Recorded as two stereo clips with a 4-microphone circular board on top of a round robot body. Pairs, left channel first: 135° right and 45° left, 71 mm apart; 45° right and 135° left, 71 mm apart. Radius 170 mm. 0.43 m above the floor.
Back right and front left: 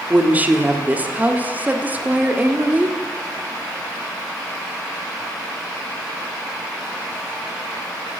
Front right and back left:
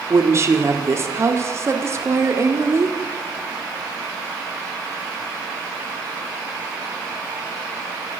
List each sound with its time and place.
0.1 s a woman speaking: 105° left, 1.8 m